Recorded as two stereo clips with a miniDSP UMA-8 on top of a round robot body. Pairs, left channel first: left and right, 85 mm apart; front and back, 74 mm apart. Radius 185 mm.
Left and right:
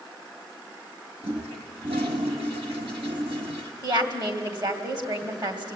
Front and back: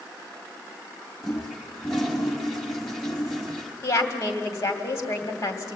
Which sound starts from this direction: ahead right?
A woman speaking, at 3.8 s.